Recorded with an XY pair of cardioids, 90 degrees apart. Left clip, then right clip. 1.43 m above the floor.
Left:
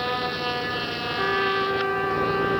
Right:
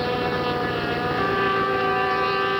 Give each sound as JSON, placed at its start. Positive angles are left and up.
{"t": 1.2, "sound": "a trumpet", "azimuth_deg": -5, "distance_m": 0.7}